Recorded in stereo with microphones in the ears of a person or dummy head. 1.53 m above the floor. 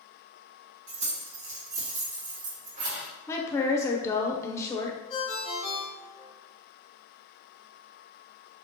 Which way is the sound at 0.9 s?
65° right (ahead or behind).